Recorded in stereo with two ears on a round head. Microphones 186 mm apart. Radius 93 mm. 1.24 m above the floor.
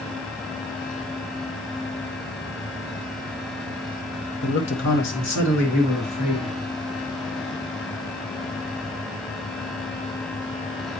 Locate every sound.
4.4 s a man speaking: 55° left (ahead or behind), 1.3 m; by 6.5 s 75° left (ahead or behind), 4 m